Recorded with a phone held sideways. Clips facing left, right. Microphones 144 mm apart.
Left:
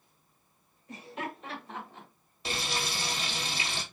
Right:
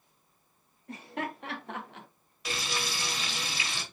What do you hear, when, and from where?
0.9 s laughter: 60° right (ahead or behind), 2.5 m; by 2.1 s 80° right, 0.9 m
2.5 s frying: 30° left (ahead or behind), 1.2 m